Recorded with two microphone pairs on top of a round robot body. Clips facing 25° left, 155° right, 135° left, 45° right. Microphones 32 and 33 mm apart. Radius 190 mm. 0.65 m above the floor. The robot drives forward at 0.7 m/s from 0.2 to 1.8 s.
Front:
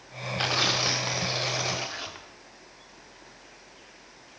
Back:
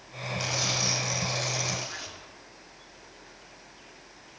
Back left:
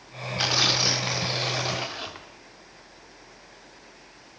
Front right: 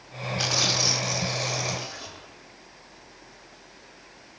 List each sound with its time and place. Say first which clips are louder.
0.4 s tearing paper: front 5 dB, back left 3 dB; 65° left, 3 m; by 2.3 s 90° left, 2.5 m